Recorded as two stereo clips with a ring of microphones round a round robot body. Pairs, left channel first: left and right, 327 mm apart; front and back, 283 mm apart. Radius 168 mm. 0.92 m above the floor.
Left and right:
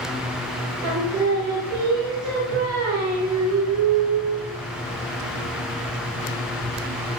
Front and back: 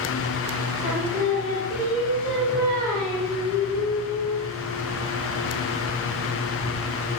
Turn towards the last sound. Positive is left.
turn(degrees=-80)